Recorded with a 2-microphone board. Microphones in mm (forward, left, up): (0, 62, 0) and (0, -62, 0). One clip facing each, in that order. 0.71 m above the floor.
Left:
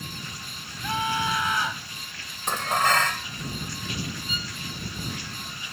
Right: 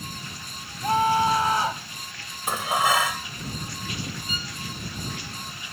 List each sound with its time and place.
0.8 s a scream: 40° right (ahead or behind); by 1.9 s 35° right (ahead or behind)
2.5 s dishes clattering: 10° right (ahead or behind)
4.3 s a violin: centre (ahead or behind)